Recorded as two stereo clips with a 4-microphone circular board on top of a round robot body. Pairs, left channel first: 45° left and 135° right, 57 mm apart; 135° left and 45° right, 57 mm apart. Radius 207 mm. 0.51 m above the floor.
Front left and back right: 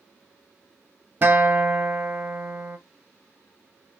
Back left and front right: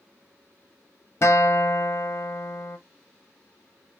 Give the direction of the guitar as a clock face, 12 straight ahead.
6 o'clock.